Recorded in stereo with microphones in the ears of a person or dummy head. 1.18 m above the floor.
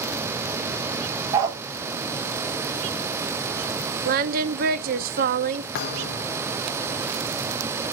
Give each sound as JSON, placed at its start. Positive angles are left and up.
{"t": 1.3, "sound": "a dog barking", "side_deg": -15, "distance_m": 0.6}
{"t": 4.0, "sound": "singing", "side_deg": -45, "distance_m": 0.6}
{"t": 5.8, "sound": "a thud", "side_deg": 50, "distance_m": 0.7}